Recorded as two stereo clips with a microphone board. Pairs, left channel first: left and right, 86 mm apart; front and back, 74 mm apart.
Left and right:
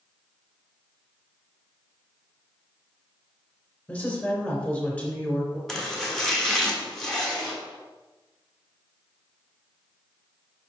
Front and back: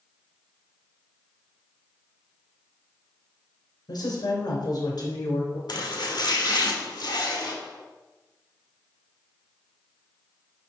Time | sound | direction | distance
3.9 | a woman speaking | 20° left | 2.5 m
5.7 | chopping | 5° left | 1.2 m